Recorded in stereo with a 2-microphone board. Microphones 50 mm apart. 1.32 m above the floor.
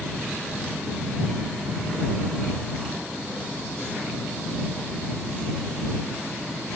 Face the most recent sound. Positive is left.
No sound to turn to.